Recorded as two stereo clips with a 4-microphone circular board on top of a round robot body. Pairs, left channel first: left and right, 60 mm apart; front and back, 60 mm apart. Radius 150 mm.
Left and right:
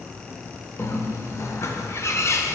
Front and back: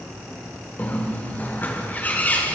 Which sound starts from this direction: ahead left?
A bird, at 0.8 s.